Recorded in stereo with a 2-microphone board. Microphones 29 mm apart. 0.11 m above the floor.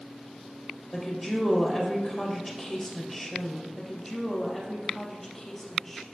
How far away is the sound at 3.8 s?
About 2 m.